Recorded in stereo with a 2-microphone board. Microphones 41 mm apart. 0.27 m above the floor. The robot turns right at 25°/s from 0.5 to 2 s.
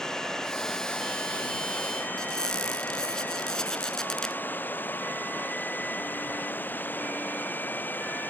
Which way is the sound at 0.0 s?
15° left.